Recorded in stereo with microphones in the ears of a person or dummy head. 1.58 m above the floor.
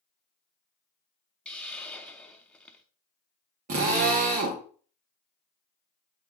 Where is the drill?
40° right (ahead or behind), 1.0 m.